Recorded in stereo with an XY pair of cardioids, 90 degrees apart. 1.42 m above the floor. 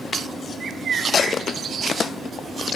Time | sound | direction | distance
0.6 | a bird | 55° right | 0.9 m